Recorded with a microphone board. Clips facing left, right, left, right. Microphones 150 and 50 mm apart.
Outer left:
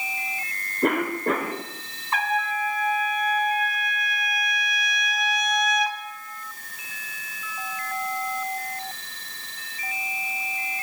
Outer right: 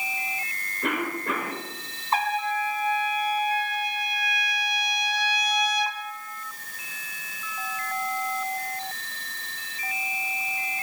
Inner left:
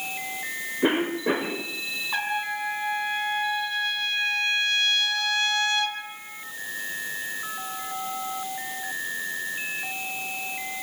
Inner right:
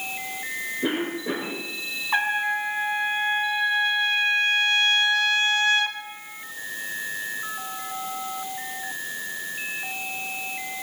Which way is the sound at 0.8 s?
45° left (ahead or behind).